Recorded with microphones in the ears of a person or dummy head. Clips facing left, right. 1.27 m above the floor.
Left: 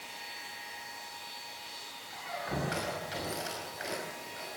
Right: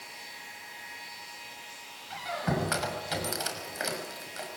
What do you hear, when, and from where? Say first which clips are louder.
2.1 s a squeak: right 6 dB; 65° right (ahead or behind), 5.5 m